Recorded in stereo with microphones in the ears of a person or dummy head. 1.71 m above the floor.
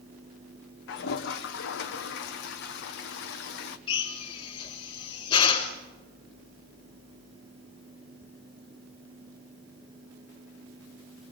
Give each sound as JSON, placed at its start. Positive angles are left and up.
{"t": 0.9, "sound": "a toilet flushing", "side_deg": 70, "distance_m": 1.1}
{"t": 3.9, "sound": "a drill", "side_deg": 25, "distance_m": 3.5}